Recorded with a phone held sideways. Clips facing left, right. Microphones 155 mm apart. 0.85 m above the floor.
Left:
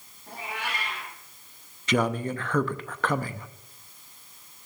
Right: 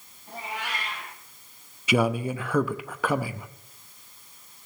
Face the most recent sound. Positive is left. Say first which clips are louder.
# right 2 dB
turn(degrees=-10)  # may be behind; listen again after turning